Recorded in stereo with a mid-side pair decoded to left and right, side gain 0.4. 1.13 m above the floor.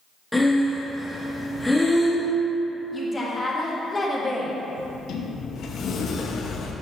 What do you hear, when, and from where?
0.3 s breathing: 5° left, 1.3 m
2.9 s a woman speaking: 30° left, 1.7 m
4.8 s a sliding door: 65° left, 0.7 m